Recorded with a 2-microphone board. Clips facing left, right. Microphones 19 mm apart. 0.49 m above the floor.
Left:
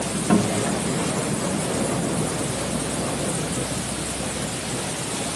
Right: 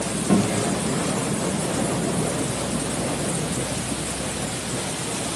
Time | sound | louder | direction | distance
0.3 | a guitar | even | 20° left (ahead or behind) | 1.1 m